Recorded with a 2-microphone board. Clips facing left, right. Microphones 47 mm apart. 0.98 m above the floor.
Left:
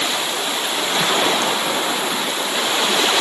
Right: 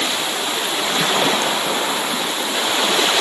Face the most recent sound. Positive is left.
No sound to turn to.